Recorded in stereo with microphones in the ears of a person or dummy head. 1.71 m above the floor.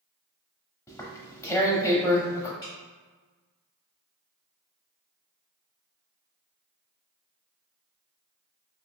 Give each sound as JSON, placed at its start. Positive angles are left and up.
{"t": 0.9, "sound": "tearing paper", "side_deg": 20, "distance_m": 0.6}
{"t": 2.6, "sound": "dripping", "side_deg": 20, "distance_m": 0.8}